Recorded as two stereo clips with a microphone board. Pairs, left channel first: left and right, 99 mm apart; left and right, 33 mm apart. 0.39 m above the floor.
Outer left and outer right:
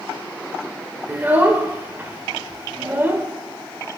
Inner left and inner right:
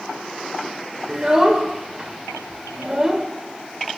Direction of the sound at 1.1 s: 20° right (ahead or behind).